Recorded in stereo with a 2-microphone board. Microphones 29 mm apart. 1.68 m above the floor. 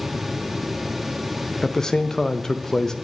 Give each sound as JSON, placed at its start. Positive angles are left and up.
{"t": 1.6, "sound": "a man speaking", "side_deg": 15, "distance_m": 0.5}